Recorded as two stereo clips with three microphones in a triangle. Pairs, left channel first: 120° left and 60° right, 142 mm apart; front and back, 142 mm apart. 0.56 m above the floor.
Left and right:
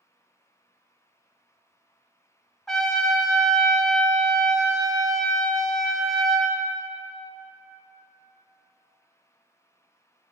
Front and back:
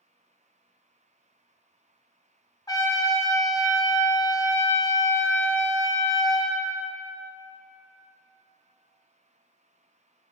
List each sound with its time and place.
2.7 s a trumpet: 35° left, 0.7 m